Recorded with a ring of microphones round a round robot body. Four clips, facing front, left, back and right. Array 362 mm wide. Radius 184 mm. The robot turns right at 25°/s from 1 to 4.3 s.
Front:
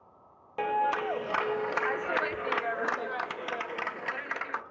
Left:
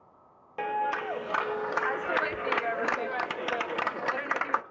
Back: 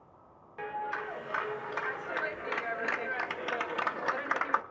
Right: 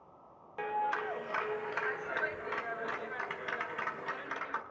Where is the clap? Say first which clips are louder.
Left 4 dB, front 8 dB; 25° left, 0.5 m; by 4.6 s 110° left, 0.5 m.